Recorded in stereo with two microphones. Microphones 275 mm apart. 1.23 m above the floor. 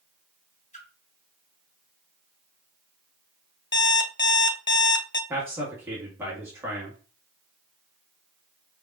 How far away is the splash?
About 1.8 m.